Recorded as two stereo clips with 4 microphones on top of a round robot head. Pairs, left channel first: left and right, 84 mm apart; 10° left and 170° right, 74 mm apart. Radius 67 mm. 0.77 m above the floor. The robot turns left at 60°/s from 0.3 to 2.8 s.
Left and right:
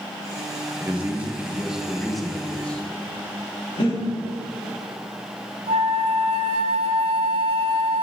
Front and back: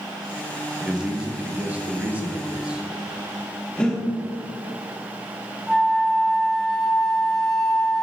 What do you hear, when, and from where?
0.8 s a man speaking: 105° right, 1.1 m; by 2.8 s 135° left, 1.1 m
3.8 s breathing: 85° left, 4.5 m
5.7 s a flute: 80° right, 0.9 m